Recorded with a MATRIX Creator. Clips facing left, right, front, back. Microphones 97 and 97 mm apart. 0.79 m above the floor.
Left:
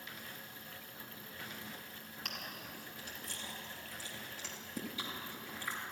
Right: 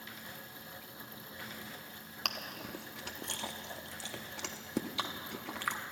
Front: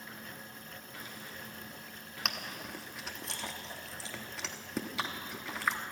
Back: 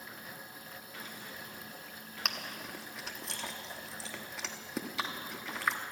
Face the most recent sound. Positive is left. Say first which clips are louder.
# right 6 dB, front 1 dB
turn(degrees=-90)